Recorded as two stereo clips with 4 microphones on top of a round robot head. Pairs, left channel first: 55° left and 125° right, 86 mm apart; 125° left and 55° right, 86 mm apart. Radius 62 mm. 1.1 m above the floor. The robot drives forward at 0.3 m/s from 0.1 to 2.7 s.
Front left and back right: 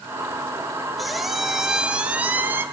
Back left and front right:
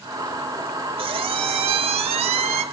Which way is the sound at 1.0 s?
30° right.